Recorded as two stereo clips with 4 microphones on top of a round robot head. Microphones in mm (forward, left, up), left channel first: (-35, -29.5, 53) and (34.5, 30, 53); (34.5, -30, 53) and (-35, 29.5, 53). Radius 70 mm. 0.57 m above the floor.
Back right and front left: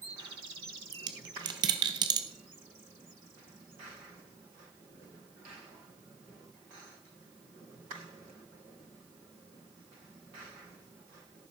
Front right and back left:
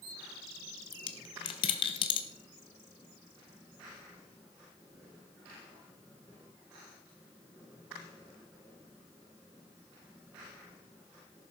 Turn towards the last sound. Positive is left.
turn(degrees=-5)